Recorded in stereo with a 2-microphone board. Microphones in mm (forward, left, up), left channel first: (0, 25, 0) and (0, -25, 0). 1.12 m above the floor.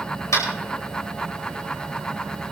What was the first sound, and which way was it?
Tapping, 80° left.